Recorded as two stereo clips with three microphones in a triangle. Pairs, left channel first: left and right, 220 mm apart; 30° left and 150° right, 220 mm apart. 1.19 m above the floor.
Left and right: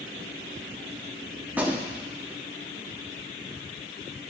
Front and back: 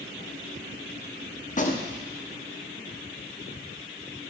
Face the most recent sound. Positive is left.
turn(degrees=-10)